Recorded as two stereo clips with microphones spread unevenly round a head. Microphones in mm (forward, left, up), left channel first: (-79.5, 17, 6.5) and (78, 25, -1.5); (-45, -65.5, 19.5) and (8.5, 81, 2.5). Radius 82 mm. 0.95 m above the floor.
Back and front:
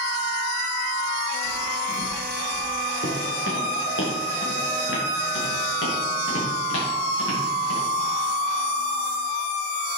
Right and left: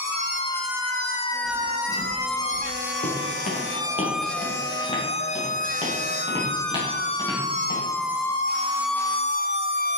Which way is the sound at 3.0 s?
150° right.